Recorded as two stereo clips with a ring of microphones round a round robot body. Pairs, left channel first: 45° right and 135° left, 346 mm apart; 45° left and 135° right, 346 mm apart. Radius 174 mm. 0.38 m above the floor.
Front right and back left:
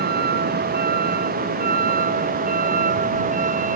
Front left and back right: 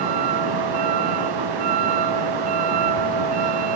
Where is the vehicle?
160° right; by 3.8 s 155° right.